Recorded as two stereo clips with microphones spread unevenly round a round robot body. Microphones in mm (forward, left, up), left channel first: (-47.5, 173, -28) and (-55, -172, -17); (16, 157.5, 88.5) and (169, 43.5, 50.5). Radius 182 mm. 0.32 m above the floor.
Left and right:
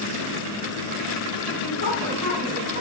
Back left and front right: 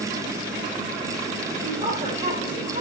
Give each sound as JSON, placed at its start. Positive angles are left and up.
{"t": 1.6, "sound": "a woman speaking", "azimuth_deg": 20, "distance_m": 5.0}